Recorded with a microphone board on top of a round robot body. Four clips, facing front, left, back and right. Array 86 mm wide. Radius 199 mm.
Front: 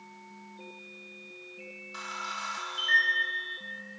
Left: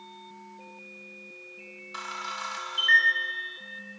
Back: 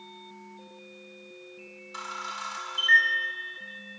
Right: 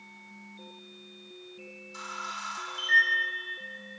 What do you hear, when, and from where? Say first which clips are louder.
1.9 s a camera shutter: left 2 dB, back 1 dB; 95° left, 3.5 m